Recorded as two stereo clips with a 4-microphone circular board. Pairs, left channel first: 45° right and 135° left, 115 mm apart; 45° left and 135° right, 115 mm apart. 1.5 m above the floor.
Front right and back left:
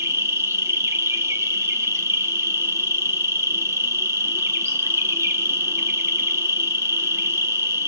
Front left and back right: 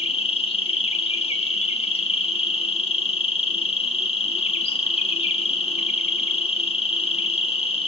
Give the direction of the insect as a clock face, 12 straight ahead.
10 o'clock.